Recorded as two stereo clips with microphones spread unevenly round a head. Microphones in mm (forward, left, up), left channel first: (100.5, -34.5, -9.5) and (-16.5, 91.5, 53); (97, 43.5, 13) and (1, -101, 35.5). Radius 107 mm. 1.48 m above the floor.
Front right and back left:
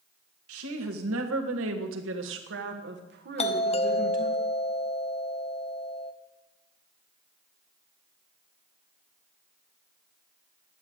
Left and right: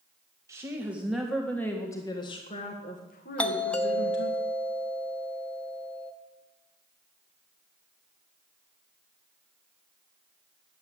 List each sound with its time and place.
0.5 s a woman speaking: 160° left, 1.8 m; by 4.4 s 85° left, 1.8 m
3.4 s a doorbell: 20° right, 1.2 m